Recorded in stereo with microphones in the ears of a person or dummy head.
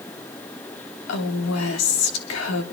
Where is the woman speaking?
75° left (ahead or behind), 1.6 m.